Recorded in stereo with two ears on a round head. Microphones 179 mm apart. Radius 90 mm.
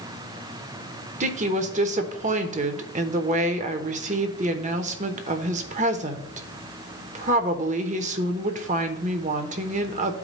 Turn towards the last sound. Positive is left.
turn(degrees=-35)  # may be behind; listen again after turning